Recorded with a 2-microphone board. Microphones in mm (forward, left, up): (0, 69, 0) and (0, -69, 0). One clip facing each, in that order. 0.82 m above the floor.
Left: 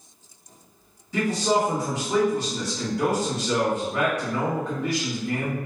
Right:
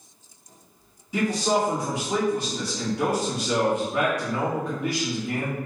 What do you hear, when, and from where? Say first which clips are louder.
1.1 s a man speaking: even; 15° right (ahead or behind), 1.3 m